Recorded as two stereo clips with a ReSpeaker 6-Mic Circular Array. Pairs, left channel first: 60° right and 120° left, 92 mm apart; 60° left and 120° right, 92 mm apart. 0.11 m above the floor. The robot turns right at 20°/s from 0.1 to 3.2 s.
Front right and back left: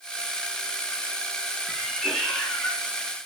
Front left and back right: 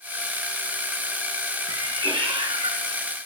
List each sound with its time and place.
1.7 s a cat meowing: 150° right, 4 m; by 2.9 s 130° right, 4 m